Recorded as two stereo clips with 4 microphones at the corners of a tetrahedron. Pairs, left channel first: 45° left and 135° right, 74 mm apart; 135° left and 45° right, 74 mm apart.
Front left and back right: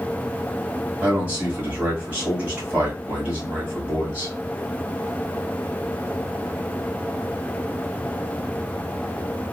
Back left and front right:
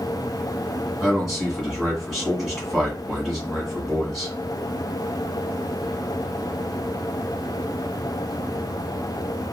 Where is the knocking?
No knocking in this recording.